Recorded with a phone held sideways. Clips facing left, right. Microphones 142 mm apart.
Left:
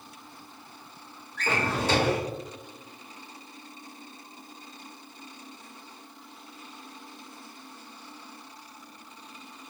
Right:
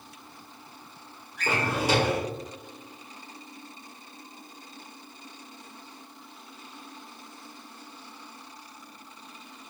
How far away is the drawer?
About 0.9 m.